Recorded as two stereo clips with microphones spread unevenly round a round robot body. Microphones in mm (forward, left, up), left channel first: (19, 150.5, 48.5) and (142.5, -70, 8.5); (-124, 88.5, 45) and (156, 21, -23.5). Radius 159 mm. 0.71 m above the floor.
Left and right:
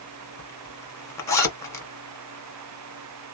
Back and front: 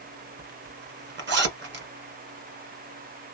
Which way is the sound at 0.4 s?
45° left.